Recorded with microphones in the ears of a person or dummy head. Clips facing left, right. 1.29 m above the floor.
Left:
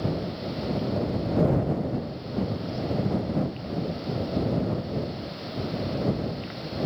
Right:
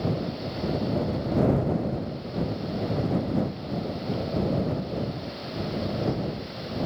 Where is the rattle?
I don't hear a rattle.